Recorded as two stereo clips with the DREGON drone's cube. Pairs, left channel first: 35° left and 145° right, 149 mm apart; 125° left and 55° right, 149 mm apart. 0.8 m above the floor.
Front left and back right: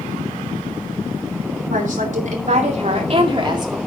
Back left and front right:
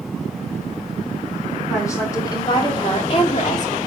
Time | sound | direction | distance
1.7 | a woman speaking | 165° right | 3 m